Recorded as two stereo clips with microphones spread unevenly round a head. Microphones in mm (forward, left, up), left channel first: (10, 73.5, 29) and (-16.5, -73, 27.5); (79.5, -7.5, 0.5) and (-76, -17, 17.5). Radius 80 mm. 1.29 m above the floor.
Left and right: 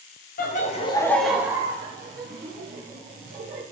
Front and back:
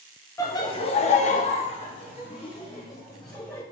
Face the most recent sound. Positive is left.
turn(degrees=-60)